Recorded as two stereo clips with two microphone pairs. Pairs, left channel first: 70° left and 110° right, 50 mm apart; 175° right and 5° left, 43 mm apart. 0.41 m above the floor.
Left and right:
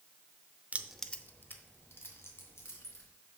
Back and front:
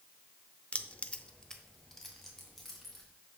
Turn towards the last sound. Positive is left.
turn(degrees=95)